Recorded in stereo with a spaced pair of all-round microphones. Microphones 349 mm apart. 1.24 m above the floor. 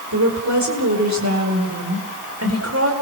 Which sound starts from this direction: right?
A woman speaking, at 0.1 s.